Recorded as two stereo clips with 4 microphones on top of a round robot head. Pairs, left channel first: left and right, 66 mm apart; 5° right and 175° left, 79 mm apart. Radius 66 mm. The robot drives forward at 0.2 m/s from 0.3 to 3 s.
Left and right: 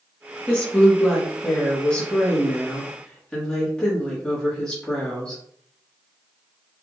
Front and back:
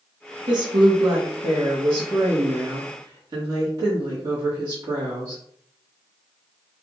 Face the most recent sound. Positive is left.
turn(degrees=165)